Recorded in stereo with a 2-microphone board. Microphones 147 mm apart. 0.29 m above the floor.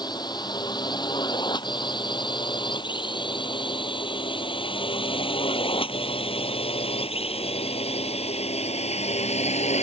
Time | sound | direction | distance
0.0 | a drone | 30° left (ahead or behind) | ?